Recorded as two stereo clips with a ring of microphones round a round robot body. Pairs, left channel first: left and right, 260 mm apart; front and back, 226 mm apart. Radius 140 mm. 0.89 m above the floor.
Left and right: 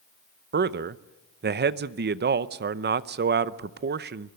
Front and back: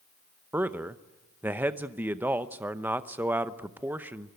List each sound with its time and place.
0.5 s a man speaking: 105° right, 0.7 m